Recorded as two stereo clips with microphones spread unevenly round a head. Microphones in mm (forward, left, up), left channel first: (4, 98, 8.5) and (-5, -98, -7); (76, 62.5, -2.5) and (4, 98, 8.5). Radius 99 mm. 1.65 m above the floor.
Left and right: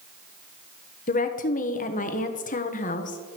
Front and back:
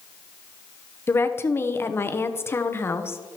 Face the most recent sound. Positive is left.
turn(degrees=35)